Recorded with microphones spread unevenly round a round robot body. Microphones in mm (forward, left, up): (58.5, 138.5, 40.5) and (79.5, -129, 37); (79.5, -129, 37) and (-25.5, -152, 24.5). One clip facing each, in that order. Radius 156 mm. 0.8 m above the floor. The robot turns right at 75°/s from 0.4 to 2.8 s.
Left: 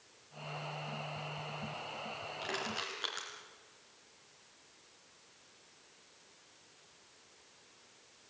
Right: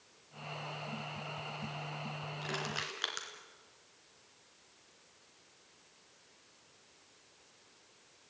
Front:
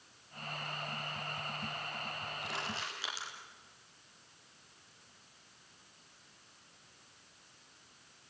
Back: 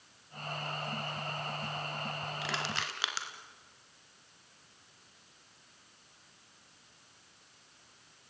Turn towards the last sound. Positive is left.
turn(degrees=-150)